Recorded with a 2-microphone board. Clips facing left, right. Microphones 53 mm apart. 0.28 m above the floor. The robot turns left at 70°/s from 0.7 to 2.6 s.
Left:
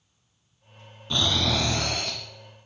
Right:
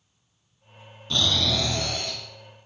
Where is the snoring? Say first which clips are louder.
Even; 165° left, 1.4 m; by 2.2 s 90° left, 1.4 m.